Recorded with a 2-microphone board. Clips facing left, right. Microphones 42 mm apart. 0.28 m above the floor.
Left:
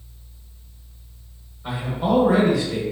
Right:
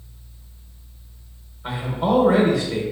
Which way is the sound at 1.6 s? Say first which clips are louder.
Right 1 dB; 20° right (ahead or behind).